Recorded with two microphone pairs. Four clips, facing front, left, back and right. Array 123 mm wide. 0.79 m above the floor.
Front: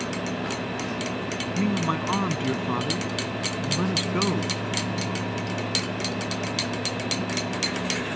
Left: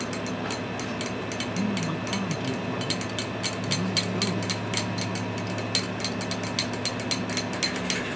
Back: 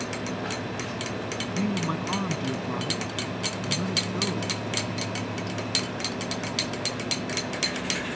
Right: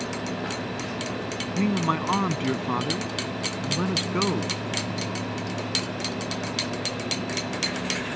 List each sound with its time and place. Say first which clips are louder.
1.6 s a man speaking: right 6 dB, front 3 dB; 70° right; by 4.6 s 60° right